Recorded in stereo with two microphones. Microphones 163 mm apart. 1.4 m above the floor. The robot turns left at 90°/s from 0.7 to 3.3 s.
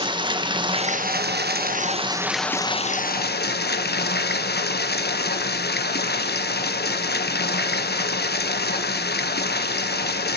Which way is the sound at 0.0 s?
30° right.